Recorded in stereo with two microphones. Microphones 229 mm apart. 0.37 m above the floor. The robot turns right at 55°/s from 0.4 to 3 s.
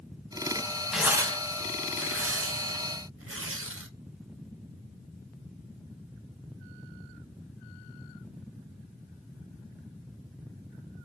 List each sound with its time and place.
0.9 s tearing paper: centre (ahead or behind), 0.5 m; by 3.9 s 65° right (ahead or behind), 0.5 m